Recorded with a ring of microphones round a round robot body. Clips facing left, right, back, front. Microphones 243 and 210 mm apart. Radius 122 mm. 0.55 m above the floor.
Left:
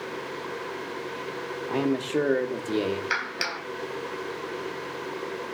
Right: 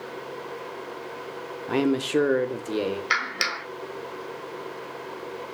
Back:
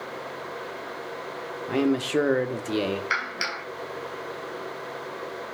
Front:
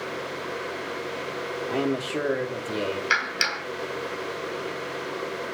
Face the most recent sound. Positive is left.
turn(degrees=-30)